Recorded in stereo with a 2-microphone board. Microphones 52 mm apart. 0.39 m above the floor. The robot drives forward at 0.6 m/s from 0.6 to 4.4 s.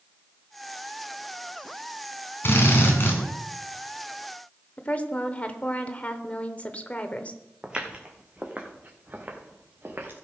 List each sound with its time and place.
2.4 s a drill: 45° left (ahead or behind), 3 m; by 3.2 s 40° left (ahead or behind), 3 m
4.8 s a woman speaking: 25° left (ahead or behind), 1.0 m
7.6 s footsteps: 15° right (ahead or behind), 1.8 m; by 10.1 s 40° right (ahead or behind), 2.5 m